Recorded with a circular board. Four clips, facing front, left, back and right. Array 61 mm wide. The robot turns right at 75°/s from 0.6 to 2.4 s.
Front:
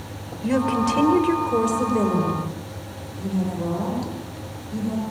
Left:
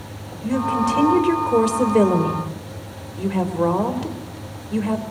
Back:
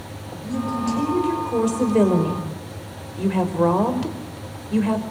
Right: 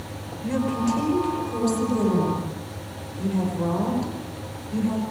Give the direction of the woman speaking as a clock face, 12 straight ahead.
12 o'clock.